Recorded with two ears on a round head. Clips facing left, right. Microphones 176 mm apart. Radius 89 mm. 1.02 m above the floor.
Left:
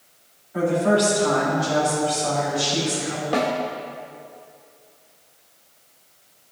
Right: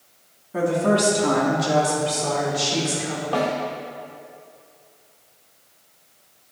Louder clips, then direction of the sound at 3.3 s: Left 1 dB; 20° left (ahead or behind).